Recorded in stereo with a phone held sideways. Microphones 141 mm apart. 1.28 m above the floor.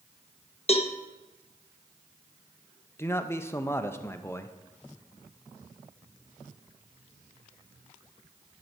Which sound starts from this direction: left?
A cowbell, at 0.7 s.